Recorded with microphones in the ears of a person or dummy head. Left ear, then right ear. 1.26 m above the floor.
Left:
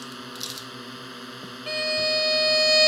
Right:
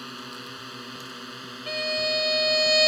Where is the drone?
5° right (ahead or behind).